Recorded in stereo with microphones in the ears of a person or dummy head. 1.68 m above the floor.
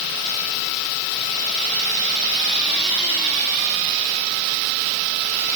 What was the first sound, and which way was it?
Only background noise.